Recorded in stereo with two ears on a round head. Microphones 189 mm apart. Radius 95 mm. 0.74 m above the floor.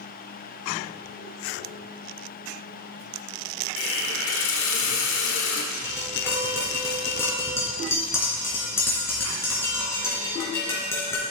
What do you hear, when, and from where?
3.8 s a hiss: 65° left (ahead or behind), 1.9 m
5.7 s tapping: 15° left (ahead or behind), 3.5 m